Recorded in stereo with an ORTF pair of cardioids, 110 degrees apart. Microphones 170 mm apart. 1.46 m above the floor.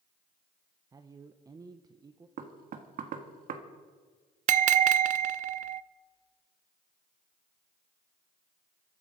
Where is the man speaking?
25° right, 0.9 m.